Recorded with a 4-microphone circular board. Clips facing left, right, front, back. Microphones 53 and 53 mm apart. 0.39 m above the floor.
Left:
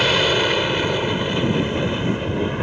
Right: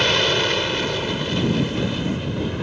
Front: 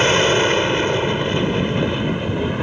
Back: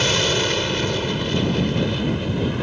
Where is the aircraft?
10° left; by 2.6 s 55° left.